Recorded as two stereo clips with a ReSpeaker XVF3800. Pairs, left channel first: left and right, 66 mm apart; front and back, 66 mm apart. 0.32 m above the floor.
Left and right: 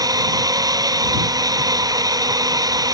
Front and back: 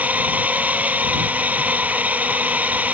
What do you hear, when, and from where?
0.0 s a drone: 110° right